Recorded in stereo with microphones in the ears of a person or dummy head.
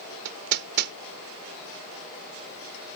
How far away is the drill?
No drill in this recording.